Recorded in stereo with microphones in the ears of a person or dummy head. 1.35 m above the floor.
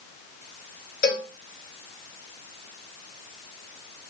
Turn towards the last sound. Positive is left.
turn(degrees=55)  # may be behind; listen again after turning